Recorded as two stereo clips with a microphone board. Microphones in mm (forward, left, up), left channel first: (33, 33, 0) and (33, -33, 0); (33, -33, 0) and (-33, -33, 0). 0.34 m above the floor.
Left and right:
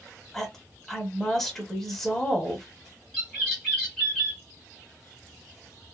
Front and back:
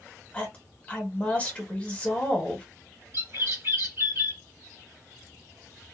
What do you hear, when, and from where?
0.3 s a woman speaking: 20° left, 1.0 m
3.1 s a bird: 165° left, 1.8 m